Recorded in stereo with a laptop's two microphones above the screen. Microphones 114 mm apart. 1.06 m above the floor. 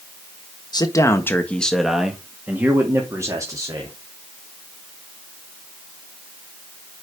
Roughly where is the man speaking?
Left.